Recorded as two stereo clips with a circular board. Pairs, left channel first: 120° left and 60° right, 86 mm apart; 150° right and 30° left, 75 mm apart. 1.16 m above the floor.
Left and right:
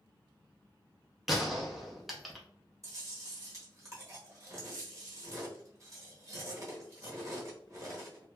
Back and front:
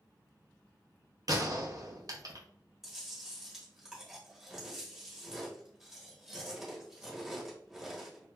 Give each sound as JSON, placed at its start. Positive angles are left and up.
{"t": 1.3, "sound": "a gunshot", "azimuth_deg": 25, "distance_m": 0.6}
{"t": 2.8, "sound": "chewing", "azimuth_deg": -50, "distance_m": 1.0}